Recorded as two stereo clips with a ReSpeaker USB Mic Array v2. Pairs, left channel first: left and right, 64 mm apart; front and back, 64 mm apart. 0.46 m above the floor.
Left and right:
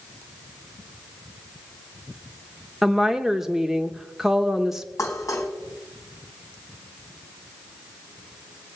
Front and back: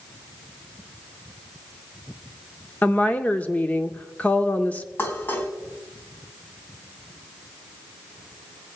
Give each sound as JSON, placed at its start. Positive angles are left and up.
{"t": 2.8, "sound": "a woman speaking", "azimuth_deg": -15, "distance_m": 0.8}
{"t": 5.0, "sound": "dishes clattering", "azimuth_deg": 55, "distance_m": 2.5}